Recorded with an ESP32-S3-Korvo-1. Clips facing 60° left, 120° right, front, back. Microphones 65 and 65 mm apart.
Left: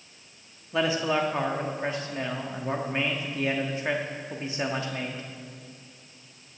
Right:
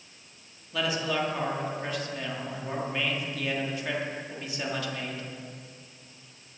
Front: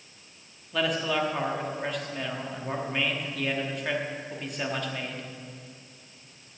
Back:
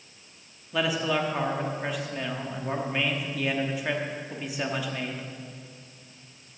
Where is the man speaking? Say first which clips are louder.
Left 4 dB, back 1 dB; 100° left, 1.1 m.